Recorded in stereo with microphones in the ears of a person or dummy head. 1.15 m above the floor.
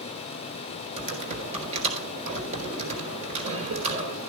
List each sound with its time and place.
1.0 s typing on a keyboard: 35° right (ahead or behind), 4 m